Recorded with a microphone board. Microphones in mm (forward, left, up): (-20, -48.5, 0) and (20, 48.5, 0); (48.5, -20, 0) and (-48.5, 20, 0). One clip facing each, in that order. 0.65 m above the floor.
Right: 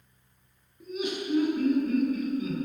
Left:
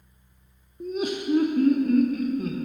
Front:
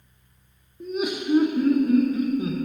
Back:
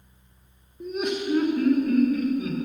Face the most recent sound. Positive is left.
turn(degrees=30)